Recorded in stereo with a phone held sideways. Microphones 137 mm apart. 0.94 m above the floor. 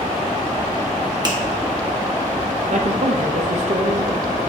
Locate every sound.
1.2 s a finger snap: 30° right (ahead or behind), 1.1 m
2.7 s a man speaking: 55° right (ahead or behind), 0.7 m